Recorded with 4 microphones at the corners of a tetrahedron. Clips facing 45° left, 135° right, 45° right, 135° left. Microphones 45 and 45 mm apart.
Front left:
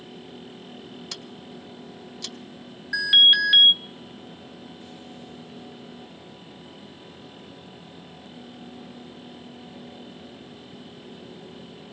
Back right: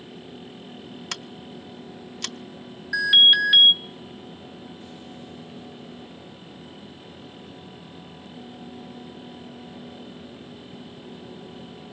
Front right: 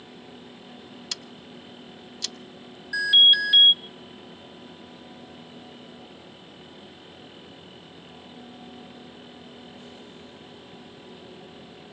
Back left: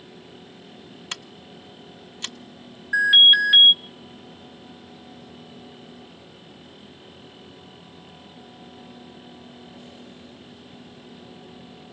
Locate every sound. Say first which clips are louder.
1.1 s scissors: back right 3 dB, back left 4 dB; 170° right, 0.6 m
2.9 s an alarm: back right 1 dB, back left 3 dB; 125° left, 1.6 m